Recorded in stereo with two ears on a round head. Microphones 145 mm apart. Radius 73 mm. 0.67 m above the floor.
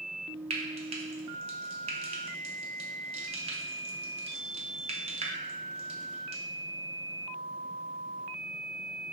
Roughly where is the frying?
Right.